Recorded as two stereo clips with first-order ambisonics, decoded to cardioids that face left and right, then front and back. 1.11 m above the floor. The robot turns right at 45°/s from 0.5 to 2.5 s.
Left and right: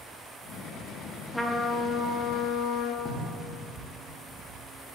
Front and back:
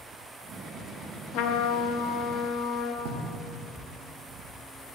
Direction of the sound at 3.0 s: 160° left.